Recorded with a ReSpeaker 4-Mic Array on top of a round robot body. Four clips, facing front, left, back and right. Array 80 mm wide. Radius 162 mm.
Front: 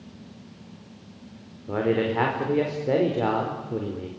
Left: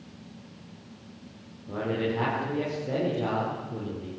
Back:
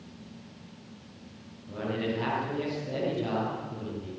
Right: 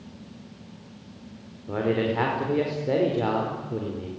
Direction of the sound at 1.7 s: 20° right.